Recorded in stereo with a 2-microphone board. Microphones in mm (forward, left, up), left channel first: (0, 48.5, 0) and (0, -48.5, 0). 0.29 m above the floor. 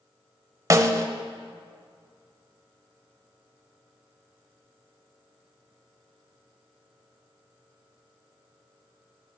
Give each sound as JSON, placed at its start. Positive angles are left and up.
{"t": 0.7, "sound": "a snare drum", "side_deg": -35, "distance_m": 0.7}